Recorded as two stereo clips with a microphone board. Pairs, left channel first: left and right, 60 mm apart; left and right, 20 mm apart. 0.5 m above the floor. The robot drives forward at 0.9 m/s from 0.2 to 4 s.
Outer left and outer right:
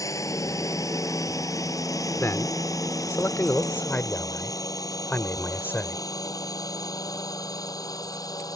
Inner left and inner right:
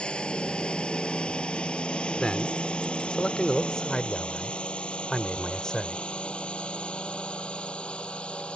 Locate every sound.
0.0 s a drone: 60° left (ahead or behind); by 8.6 s 80° left
2.2 s a man speaking: 45° left (ahead or behind); by 6.0 s 30° left (ahead or behind)